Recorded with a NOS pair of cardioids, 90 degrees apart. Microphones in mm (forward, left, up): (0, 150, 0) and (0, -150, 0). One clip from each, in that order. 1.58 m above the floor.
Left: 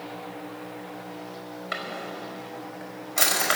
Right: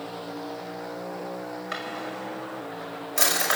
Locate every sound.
1.7 s a drawer: 15° right, 5 m